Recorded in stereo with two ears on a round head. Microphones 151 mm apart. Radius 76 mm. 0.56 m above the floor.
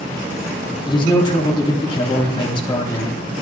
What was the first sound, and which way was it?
A man speaking, 25° left (ahead or behind).